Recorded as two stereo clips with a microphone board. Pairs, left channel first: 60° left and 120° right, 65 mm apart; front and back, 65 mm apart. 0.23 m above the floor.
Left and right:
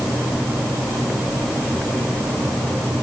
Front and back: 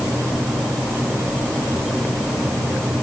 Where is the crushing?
I don't hear crushing.